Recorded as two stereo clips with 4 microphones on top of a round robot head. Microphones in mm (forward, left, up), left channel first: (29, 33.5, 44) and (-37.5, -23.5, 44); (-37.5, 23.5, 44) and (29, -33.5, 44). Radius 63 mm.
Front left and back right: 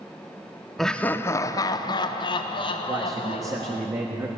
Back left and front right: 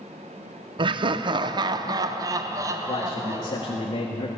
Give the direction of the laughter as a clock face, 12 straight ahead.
2 o'clock.